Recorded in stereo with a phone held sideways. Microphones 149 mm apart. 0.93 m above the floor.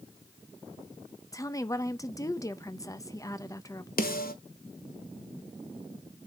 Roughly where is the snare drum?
Left.